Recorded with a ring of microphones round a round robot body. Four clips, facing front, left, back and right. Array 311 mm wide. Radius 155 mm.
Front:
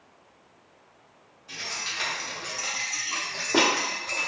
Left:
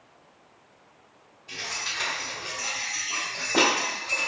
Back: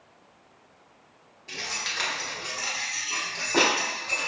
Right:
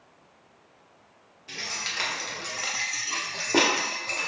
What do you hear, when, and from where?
1.5 s keys jangling: 140° right, 0.9 m; by 4.3 s 45° right, 1.2 m